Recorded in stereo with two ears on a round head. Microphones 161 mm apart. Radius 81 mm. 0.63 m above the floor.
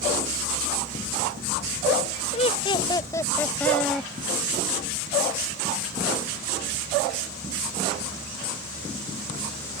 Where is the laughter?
35° left (ahead or behind); by 4.1 s 5° left (ahead or behind).